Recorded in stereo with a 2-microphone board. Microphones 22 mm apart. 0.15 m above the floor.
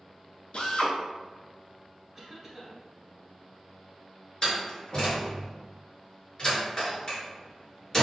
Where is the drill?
55° left (ahead or behind), 0.8 m.